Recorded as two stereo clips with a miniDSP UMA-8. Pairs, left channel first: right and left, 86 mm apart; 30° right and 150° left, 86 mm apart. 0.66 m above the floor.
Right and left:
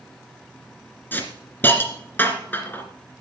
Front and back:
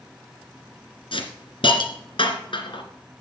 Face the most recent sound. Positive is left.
turn(degrees=-25)